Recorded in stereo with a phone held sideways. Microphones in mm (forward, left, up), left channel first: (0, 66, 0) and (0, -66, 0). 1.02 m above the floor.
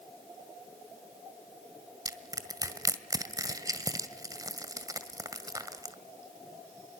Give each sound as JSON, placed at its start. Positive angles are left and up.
{"t": 2.0, "sound": "crushing", "side_deg": -30, "distance_m": 1.7}